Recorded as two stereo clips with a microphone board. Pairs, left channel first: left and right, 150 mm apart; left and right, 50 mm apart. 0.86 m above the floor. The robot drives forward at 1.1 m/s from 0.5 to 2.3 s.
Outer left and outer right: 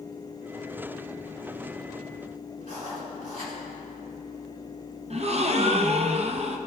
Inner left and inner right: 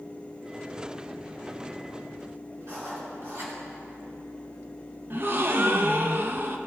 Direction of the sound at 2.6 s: 70° right (ahead or behind).